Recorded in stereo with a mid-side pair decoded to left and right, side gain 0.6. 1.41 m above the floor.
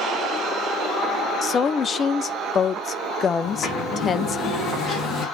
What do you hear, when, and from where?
1.4 s a woman speaking: 35° left, 0.7 m
3.4 s a sliding door: 45° left, 3.5 m